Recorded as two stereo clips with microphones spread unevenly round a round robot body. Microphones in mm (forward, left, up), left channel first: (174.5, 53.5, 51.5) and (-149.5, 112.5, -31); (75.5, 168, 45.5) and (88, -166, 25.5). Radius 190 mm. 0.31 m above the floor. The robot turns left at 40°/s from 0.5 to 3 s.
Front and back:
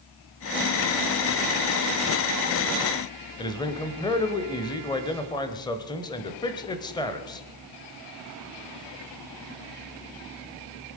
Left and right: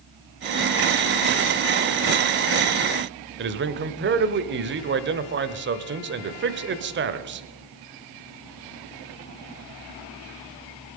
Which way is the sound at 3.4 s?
100° right.